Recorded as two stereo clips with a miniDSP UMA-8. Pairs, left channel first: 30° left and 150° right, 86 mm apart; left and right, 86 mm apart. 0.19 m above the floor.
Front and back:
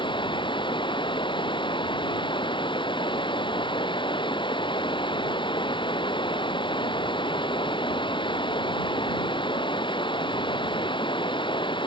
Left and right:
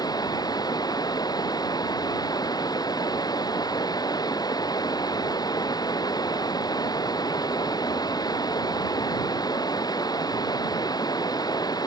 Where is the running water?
50° left.